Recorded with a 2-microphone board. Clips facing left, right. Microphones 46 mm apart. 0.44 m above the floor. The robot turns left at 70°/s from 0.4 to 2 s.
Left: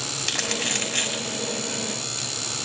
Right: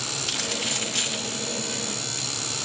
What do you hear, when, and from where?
0.2 s crumpling: 85° left, 7 m; by 1.4 s 20° left (ahead or behind), 7 m